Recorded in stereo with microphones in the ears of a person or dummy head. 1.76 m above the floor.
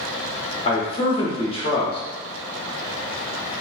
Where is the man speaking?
40° left (ahead or behind), 0.9 m.